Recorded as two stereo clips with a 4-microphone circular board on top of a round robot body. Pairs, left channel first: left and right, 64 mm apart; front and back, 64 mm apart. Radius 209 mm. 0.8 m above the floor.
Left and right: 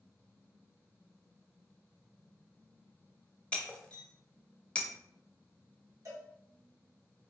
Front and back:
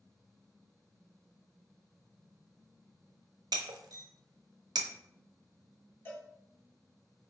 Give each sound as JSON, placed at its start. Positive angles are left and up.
{"t": 3.5, "sound": "breaking glass", "azimuth_deg": 160, "distance_m": 0.5}
{"t": 6.0, "sound": "a cowbell", "azimuth_deg": -55, "distance_m": 1.8}